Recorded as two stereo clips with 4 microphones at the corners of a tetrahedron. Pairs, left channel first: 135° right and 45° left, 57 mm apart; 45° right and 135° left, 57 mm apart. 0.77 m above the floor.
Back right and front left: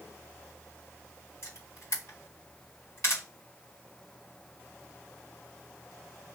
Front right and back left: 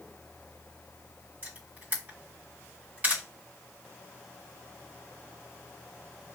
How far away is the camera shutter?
About 2 m.